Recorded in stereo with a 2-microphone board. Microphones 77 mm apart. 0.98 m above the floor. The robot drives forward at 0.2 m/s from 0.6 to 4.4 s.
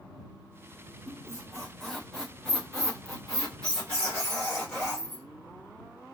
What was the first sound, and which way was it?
A squeak, 10° left (ahead or behind).